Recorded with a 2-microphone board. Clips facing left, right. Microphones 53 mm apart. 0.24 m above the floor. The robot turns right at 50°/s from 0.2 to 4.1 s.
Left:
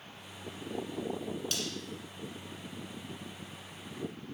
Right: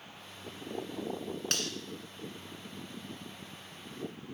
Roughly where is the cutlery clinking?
Right.